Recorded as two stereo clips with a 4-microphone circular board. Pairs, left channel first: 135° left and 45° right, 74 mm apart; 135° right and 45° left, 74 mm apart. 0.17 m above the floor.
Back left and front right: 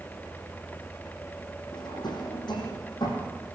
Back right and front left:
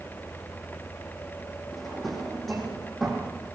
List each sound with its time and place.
1.7 s a drawer: 135° left, 5.5 m